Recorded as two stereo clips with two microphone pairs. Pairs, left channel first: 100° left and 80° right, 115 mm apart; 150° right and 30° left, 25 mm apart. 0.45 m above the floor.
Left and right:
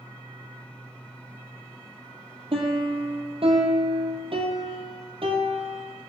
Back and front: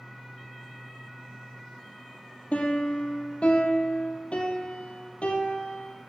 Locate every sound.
2.5 s a piano: 115° right, 1.9 m